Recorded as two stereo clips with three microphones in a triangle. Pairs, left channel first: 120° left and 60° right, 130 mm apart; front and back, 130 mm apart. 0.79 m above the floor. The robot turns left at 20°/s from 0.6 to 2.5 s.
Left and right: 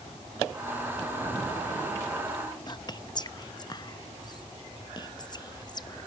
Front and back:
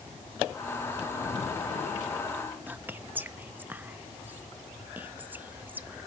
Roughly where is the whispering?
Behind left.